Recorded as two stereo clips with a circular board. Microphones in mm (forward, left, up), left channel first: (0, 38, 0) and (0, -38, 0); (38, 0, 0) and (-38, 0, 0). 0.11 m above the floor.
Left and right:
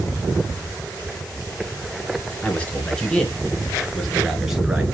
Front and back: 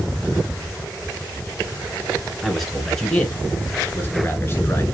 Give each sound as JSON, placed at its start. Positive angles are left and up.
{"t": 2.4, "sound": "a man speaking", "azimuth_deg": 90, "distance_m": 1.8}